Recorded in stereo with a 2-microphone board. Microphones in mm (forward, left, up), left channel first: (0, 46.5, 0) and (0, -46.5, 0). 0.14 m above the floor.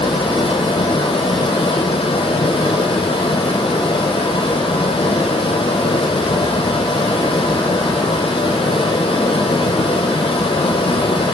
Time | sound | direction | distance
0.0 | running water | 85° left | 0.7 m